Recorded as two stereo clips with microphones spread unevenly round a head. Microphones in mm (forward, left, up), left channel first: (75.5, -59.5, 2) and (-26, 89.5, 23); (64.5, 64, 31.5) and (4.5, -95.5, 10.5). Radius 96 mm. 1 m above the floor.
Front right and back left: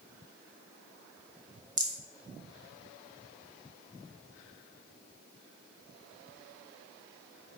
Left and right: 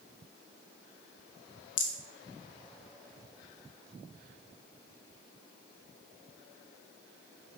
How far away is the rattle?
About 2.5 m.